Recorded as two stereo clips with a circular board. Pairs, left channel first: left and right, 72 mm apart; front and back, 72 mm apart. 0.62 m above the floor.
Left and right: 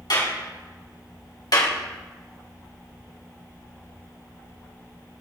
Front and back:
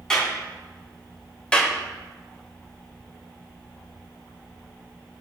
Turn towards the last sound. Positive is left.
turn(degrees=75)